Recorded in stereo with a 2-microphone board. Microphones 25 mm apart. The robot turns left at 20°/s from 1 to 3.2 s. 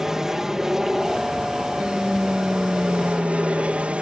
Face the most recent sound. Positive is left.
turn(degrees=-70)